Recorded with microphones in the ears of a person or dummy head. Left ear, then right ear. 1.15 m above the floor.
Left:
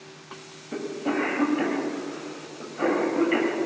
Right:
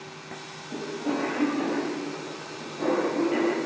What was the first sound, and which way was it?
A cough, 60° left (ahead or behind).